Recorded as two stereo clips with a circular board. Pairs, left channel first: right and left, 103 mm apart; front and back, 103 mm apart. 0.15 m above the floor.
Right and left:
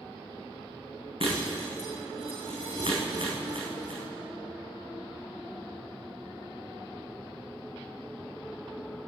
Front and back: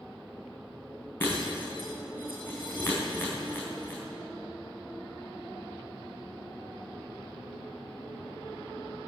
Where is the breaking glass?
70° left, 4 m.